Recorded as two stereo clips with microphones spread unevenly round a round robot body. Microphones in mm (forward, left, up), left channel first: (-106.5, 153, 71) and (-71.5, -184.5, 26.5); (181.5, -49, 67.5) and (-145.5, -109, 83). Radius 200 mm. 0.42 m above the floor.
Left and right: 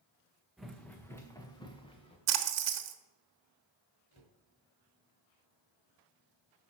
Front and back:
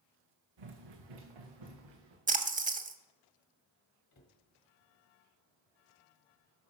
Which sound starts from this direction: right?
A splash, at 2.3 s.